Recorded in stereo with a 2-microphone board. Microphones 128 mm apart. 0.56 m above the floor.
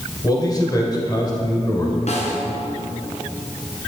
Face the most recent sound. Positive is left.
turn(degrees=65)  # may be behind; listen again after turning